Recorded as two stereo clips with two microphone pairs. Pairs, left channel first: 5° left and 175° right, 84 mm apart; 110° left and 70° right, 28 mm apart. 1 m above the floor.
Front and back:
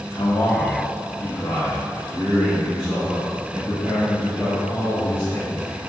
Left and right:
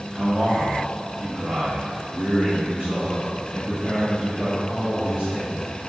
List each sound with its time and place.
0.1 s a man speaking: 25° right, 0.9 m; by 5.6 s 100° right, 3 m